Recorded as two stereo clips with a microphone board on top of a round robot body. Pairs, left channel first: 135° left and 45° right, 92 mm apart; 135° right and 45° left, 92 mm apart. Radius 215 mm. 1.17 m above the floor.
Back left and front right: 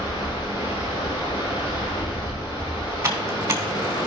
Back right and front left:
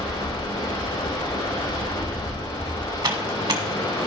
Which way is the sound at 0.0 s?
175° left.